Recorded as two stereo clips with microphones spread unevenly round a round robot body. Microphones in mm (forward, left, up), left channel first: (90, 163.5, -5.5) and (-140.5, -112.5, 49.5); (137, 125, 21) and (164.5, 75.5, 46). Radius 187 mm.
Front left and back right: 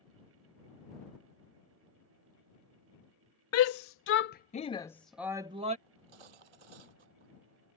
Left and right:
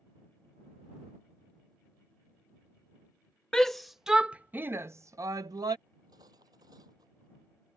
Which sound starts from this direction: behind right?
Cutlery clinking, at 5.9 s.